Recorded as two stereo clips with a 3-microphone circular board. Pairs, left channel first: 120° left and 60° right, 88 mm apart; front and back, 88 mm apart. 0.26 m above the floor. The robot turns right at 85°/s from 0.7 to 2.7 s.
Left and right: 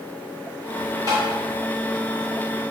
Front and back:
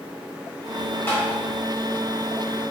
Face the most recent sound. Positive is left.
turn(degrees=85)